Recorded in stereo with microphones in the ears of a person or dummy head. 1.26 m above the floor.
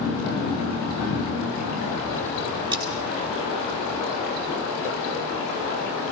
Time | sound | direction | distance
2.7 | cutlery clinking | 10° right (ahead or behind) | 5.5 m